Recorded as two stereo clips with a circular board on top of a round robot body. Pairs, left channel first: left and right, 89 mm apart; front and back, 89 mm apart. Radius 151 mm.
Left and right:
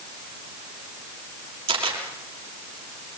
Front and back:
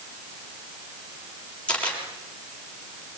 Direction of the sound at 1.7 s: 75° right.